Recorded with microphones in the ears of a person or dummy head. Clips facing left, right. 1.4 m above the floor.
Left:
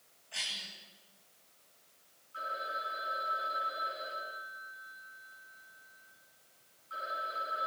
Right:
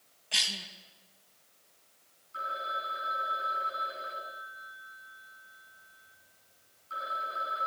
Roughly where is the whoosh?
I don't hear a whoosh.